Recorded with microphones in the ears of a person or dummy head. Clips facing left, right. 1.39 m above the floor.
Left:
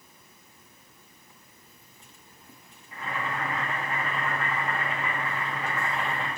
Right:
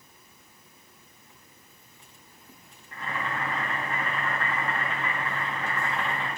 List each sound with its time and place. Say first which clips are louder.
2.9 s boiling: even; 5° left (ahead or behind), 1.7 m